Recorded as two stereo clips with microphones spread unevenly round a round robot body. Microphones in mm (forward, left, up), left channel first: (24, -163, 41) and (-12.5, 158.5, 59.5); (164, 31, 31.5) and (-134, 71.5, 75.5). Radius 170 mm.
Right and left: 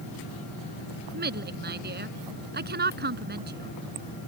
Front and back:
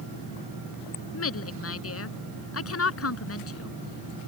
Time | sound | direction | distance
1.1 | a woman speaking | 35° left | ?